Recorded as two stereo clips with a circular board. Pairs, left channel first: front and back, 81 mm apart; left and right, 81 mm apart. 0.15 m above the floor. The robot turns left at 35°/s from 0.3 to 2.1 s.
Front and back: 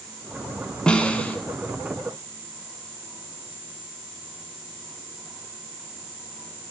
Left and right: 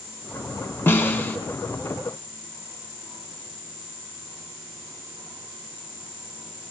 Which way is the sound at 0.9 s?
65° left.